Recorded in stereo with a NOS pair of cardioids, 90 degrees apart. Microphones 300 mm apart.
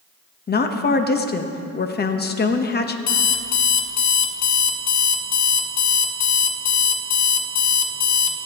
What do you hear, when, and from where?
0.5 s a woman speaking: 35° left, 1.1 m
3.1 s an alarm clock: 65° left, 1.2 m